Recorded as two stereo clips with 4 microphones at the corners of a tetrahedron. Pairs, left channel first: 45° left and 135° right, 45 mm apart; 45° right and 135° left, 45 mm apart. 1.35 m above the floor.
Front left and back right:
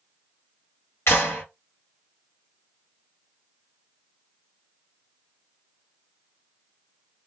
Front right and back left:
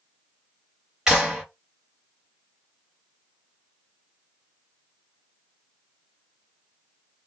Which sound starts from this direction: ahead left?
A clap, at 1.1 s.